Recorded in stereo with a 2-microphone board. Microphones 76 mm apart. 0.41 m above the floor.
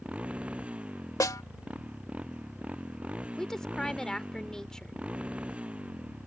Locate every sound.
0.0 s a motorcycle: 20° right (ahead or behind)
1.2 s a snare drum: 55° left (ahead or behind)
3.4 s a woman speaking: 10° left (ahead or behind)